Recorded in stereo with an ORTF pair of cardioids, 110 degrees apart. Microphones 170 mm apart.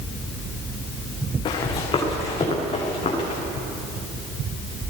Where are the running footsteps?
30° left, 7 m; by 3.4 s 35° left, 8.5 m.